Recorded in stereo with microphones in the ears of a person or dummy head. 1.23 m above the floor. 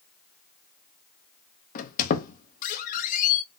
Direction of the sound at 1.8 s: 45° left (ahead or behind).